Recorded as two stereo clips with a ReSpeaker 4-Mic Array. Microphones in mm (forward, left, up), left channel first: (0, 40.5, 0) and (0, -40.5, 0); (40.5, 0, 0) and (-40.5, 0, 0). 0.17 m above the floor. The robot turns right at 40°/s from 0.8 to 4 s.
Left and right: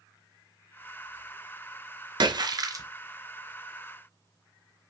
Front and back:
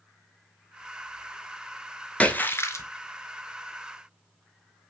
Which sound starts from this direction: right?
A splash, at 2.2 s.